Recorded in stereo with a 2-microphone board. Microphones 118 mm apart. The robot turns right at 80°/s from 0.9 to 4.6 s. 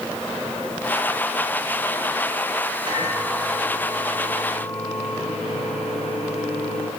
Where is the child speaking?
I don't hear a child speaking.